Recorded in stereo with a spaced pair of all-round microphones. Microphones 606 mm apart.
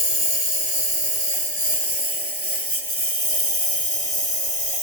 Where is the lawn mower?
80° left; by 4.8 s 60° left (ahead or behind).